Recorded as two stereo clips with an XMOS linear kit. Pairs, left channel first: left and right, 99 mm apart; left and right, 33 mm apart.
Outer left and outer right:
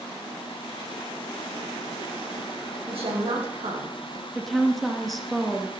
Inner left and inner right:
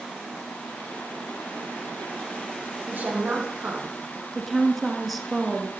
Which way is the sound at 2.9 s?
70° right (ahead or behind).